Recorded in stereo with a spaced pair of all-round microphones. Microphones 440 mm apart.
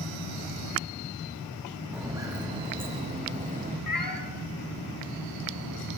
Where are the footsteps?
5° right (ahead or behind), 4 m; by 3.8 s 20° right (ahead or behind), 5 m.